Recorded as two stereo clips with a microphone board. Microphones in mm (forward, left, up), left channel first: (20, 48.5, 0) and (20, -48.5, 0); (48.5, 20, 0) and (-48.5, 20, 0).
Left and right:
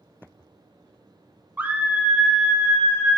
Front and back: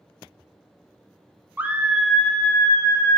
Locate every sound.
1.6 s a scream: 140° right, 1.0 m; by 3.2 s 5° left, 1.1 m